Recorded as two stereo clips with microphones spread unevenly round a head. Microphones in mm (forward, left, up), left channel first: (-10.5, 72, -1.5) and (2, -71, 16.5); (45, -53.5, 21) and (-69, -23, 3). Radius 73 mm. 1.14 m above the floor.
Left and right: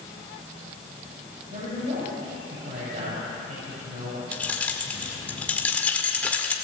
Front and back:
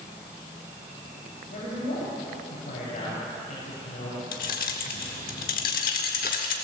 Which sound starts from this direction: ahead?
Keys jangling, at 4.3 s.